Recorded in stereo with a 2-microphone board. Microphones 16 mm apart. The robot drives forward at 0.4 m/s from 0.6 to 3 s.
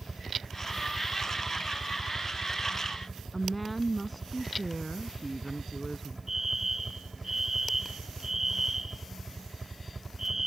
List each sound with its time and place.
0.0 s a helicopter: 15° right (ahead or behind)
3.3 s a woman speaking: 5° right (ahead or behind)
6.3 s a fire alarm: 30° right (ahead or behind)